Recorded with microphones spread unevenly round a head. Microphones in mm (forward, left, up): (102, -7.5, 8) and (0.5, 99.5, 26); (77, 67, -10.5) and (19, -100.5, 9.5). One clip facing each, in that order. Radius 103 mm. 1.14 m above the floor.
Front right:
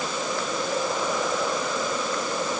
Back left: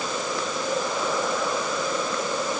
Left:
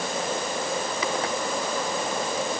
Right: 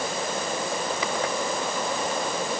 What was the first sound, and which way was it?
Only background noise.